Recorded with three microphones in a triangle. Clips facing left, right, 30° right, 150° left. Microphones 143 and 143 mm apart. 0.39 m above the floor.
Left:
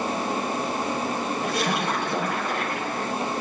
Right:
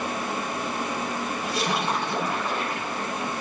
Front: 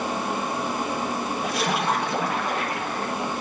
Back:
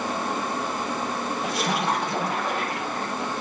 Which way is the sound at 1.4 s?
60° left.